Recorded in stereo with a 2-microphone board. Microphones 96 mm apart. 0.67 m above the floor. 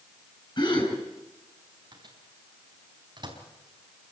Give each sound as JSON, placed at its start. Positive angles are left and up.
{"t": 0.6, "sound": "a gasp", "side_deg": 55, "distance_m": 8.0}
{"t": 1.9, "sound": "a microwave", "side_deg": -50, "distance_m": 4.5}